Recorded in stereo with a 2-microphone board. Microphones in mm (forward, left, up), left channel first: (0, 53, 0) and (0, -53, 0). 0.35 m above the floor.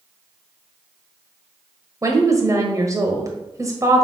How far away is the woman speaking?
About 1.4 m.